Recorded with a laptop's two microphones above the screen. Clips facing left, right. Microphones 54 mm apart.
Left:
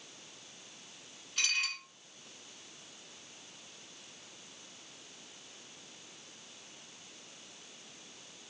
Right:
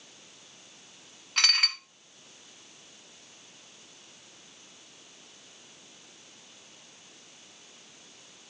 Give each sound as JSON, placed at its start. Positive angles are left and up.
{"t": 1.4, "sound": "dishes clattering", "side_deg": -80, "distance_m": 1.2}